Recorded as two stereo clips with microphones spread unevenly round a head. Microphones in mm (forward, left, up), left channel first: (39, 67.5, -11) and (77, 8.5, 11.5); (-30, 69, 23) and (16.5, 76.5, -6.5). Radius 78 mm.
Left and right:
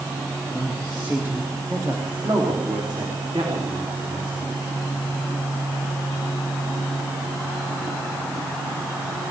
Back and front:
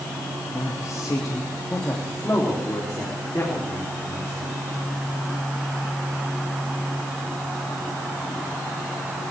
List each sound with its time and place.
0.5 s a man speaking: 155° right, 1.8 m; by 4.5 s 95° right, 5 m